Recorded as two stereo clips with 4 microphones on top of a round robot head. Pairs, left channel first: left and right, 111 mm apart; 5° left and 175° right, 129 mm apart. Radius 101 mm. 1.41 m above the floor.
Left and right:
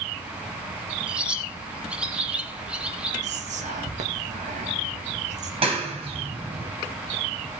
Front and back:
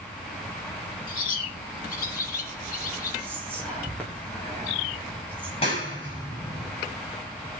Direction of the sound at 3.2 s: 80° right.